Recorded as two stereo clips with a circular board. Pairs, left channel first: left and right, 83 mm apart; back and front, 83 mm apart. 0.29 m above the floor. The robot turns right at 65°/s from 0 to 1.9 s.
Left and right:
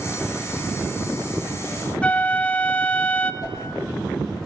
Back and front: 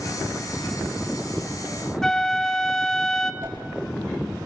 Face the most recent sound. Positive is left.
turn(degrees=60)